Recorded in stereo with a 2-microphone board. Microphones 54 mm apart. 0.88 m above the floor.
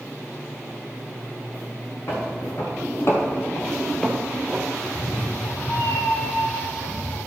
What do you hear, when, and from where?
2.1 s footsteps: 50° left (ahead or behind), 2.5 m; by 4.7 s 15° right (ahead or behind), 1.7 m
4.8 s a cat meowing: 60° left (ahead or behind), 1.2 m